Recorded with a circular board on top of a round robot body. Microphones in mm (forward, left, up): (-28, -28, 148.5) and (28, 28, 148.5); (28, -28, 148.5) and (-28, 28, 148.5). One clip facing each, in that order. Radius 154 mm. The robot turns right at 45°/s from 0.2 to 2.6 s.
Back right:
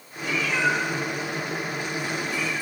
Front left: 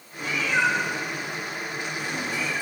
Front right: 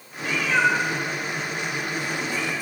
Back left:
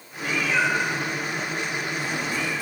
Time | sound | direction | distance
0.2 | a cat meowing | straight ahead | 3.5 m